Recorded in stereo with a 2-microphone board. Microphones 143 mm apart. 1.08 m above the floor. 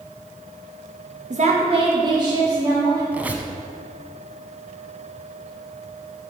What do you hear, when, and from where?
1.3 s a woman speaking: 55° right (ahead or behind), 1.3 m; by 3.0 s 20° right (ahead or behind), 3 m
3.1 s a squeak: 10° right (ahead or behind), 1.0 m